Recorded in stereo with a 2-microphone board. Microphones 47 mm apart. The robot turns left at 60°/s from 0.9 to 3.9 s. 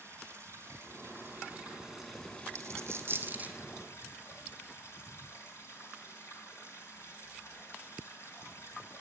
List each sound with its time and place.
0.0 s running water: 110° right, 4 m; by 9.0 s 70° left, 4 m
2.5 s a dropped coin: 80° right, 1.4 m; by 3.6 s 25° right (ahead or behind), 1.4 m